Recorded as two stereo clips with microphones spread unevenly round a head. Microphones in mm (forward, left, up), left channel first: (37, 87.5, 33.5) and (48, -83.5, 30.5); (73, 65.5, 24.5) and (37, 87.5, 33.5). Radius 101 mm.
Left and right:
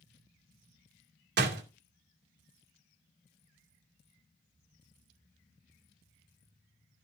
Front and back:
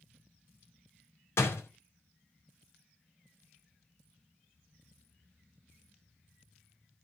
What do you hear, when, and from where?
1.4 s a door slam: 65° right, 2.5 m